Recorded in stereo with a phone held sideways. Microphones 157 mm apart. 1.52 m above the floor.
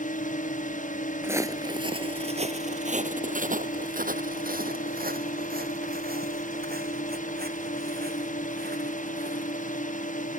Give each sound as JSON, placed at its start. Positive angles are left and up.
{"t": 0.0, "sound": "a drone", "side_deg": 50}
{"t": 1.2, "sound": "footsteps", "side_deg": -15}